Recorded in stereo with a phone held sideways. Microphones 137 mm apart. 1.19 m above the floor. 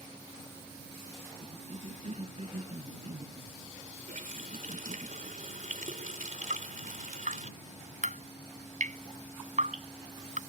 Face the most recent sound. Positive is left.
turn(degrees=-70)  # may be behind; listen again after turning